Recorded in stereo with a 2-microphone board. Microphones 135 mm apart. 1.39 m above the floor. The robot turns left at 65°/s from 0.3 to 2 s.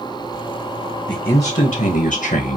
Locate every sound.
1.1 s a man speaking: 150° left, 1.3 m; by 2.6 s 90° left, 1.3 m